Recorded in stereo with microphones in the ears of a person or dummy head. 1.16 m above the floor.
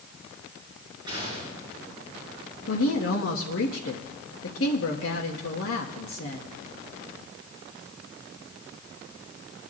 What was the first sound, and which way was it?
A gunshot, 20° right (ahead or behind).